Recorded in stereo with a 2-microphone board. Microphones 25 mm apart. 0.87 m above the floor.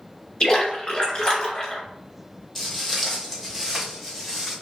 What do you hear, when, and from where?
0.4 s a splash: 35° left (ahead or behind), 1.6 m
2.5 s footsteps: 5° left (ahead or behind), 1.5 m; by 4.5 s 10° right (ahead or behind), 2.5 m